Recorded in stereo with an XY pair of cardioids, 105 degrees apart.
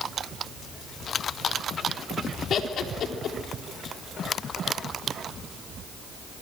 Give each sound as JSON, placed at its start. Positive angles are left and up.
{"t": 2.5, "sound": "laughter", "azimuth_deg": 60, "distance_m": 4.0}